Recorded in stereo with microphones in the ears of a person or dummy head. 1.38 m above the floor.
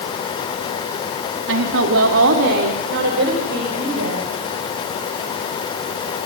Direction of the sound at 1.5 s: 85° right.